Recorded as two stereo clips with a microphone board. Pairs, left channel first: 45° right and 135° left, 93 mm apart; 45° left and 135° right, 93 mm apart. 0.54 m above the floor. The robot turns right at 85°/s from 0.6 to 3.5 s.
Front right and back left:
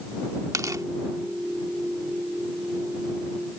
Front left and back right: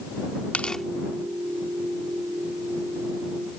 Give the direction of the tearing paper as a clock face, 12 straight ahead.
8 o'clock.